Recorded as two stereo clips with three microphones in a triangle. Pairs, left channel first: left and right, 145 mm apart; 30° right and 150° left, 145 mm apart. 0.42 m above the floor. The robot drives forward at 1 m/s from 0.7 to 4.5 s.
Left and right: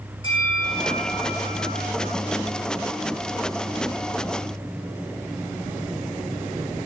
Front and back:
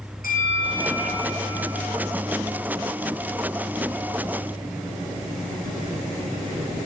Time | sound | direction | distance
0.2 | a bell | 40° right | 6 m